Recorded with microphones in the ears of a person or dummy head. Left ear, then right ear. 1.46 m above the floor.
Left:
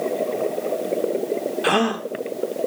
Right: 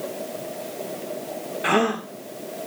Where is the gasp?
15° left (ahead or behind), 1.3 m.